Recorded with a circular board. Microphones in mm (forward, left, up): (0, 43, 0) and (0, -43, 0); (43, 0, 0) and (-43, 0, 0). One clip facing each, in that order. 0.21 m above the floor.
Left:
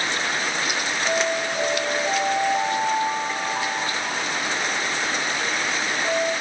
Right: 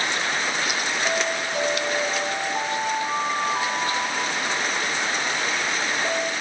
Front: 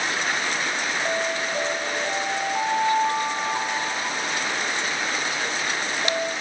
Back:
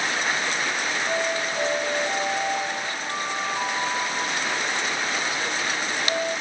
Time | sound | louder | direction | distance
1.1 | an alarm | left 4 dB, back 1 dB | 25° right | 2.5 m